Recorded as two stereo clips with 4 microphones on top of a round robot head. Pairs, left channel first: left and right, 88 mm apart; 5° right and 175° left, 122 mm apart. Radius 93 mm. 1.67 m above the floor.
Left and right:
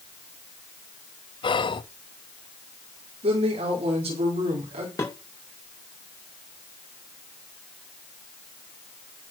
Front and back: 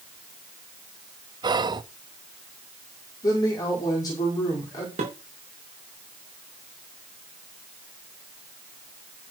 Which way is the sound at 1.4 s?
120° left.